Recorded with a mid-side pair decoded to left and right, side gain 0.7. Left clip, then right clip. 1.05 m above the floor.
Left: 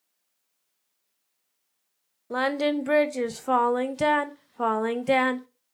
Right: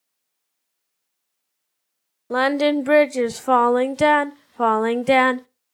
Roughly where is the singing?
Ahead right.